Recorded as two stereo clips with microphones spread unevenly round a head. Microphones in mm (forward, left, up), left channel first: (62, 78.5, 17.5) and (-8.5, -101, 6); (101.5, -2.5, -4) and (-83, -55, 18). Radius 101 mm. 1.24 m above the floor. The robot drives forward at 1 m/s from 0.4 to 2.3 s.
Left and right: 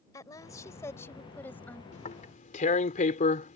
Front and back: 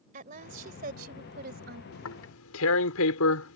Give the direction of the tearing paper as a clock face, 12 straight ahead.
11 o'clock.